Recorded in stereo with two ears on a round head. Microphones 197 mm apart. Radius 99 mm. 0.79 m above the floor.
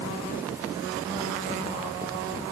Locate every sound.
Only background noise.